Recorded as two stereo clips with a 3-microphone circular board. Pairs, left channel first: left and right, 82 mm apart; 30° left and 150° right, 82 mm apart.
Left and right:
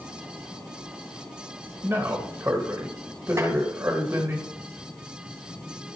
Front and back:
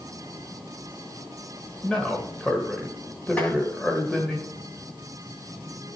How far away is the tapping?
About 2.5 m.